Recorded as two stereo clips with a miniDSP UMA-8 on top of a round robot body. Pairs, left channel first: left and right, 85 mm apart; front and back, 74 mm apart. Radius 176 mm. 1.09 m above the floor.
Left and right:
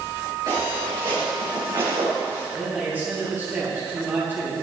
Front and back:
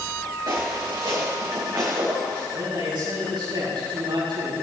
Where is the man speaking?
160° right, 7 m.